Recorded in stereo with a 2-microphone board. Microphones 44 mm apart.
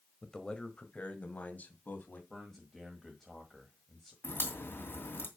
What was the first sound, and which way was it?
A man speaking, 15° left (ahead or behind).